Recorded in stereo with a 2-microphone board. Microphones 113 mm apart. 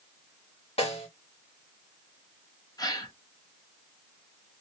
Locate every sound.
0.8 s a snare drum: 75° left (ahead or behind), 1.5 m
2.8 s a gasp: 35° left (ahead or behind), 0.7 m